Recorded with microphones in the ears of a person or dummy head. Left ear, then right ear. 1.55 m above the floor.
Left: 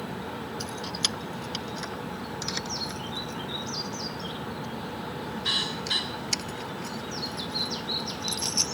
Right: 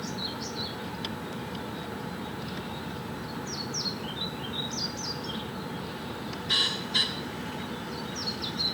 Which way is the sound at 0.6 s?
65° left (ahead or behind).